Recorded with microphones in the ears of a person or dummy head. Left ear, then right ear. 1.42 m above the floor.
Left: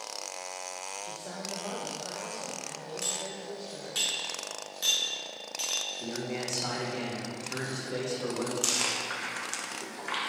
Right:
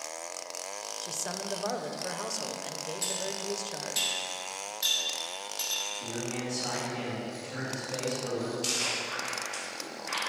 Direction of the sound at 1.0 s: 60° right (ahead or behind).